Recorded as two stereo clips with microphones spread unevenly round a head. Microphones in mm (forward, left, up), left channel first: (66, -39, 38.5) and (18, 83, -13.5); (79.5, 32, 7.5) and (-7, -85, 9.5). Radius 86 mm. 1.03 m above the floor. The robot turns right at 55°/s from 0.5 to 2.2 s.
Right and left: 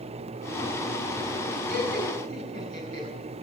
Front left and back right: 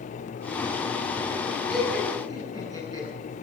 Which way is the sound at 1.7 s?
135° left.